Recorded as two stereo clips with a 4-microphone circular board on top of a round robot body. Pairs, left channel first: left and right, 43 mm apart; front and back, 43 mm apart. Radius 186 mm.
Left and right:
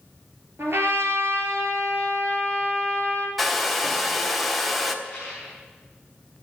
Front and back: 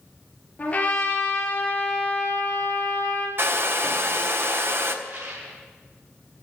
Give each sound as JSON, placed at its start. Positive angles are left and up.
{"t": 0.6, "sound": "a trumpet", "azimuth_deg": -65, "distance_m": 3.0}
{"t": 3.4, "sound": "a hair dryer", "azimuth_deg": 180, "distance_m": 1.7}
{"t": 5.0, "sound": "a rattle", "azimuth_deg": 170, "distance_m": 6.0}